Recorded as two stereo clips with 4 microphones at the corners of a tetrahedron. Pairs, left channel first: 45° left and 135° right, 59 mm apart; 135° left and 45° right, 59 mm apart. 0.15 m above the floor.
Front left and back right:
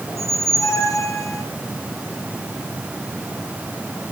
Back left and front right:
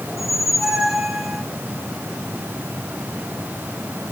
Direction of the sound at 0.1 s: 45° left.